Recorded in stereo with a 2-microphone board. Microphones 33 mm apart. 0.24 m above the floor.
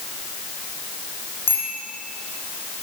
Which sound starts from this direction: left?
A bicycle bell, at 1.5 s.